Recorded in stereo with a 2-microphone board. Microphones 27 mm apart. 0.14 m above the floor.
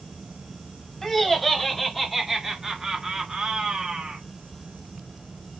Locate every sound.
1.0 s laughter: 15° left (ahead or behind), 1.4 m; by 4.2 s 35° right (ahead or behind), 1.4 m